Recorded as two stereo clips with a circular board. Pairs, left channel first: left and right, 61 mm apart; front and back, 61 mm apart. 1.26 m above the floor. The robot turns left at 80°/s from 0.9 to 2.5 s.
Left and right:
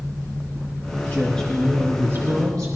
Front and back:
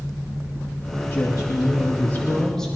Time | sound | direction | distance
1.1 | a woman speaking | 35° left | 2.5 m